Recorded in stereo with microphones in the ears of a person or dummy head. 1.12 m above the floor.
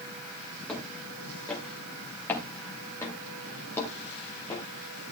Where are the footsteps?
10° left (ahead or behind), 7 m; by 4.7 s 25° left (ahead or behind), 5.5 m.